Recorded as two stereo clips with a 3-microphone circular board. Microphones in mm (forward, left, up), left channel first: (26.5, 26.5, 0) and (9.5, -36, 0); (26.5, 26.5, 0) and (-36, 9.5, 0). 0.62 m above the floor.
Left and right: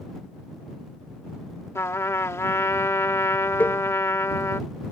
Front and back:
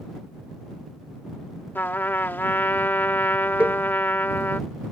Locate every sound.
1.8 s a trumpet: 60° left
3.6 s a cowbell: 135° left